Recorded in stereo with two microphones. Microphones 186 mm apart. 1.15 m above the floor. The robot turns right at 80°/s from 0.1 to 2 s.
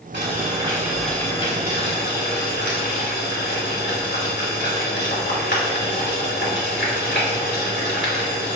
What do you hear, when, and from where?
0.1 s boiling: 70° right, 2.5 m; by 8.6 s 80° left, 2.5 m